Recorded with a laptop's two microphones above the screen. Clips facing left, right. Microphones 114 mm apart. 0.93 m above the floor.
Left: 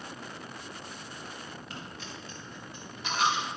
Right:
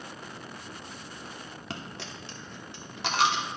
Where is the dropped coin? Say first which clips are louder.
Right 3 dB; 75° right (ahead or behind), 1.1 m.